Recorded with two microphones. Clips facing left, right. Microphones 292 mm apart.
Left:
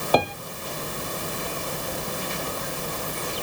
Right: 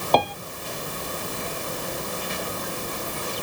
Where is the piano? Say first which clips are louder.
Even; 10° left (ahead or behind).